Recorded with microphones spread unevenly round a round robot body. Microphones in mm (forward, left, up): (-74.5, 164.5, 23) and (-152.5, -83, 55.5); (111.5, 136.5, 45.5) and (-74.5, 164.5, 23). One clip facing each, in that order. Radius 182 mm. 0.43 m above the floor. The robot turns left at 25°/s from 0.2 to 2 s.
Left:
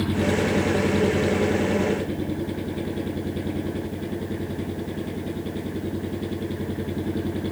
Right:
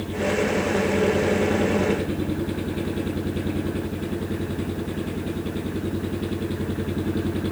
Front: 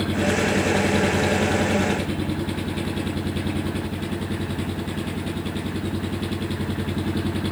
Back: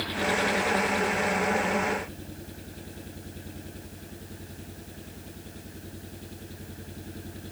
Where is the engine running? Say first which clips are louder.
Left 1 dB, front 7 dB; 20° left; by 7.5 s 25° right.